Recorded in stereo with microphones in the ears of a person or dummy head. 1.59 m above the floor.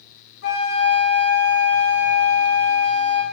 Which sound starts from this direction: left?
A flute, at 0.4 s.